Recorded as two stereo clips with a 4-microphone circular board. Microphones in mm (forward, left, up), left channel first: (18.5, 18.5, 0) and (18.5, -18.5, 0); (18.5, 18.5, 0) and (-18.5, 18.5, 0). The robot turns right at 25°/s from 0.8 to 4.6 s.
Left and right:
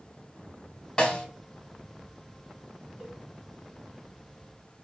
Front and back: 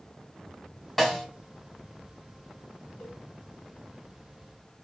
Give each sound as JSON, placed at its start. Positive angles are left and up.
{"t": 1.0, "sound": "a snare drum", "azimuth_deg": 65, "distance_m": 1.1}
{"t": 3.0, "sound": "a cowbell", "azimuth_deg": -25, "distance_m": 1.4}